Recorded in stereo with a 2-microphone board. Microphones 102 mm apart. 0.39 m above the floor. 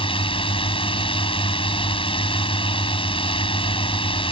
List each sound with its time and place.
0.0 s a drone: 65° left (ahead or behind)